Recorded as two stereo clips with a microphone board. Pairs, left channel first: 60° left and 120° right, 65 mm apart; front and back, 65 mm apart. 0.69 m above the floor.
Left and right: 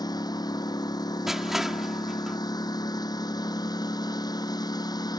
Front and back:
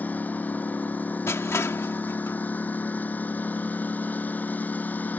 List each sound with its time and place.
0.0 s a lawn mower: 65° left
1.3 s crushing: 40° right